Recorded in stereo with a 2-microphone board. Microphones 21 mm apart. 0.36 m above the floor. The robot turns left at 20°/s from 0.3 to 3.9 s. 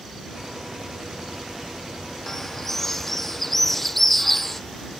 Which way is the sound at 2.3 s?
15° left (ahead or behind).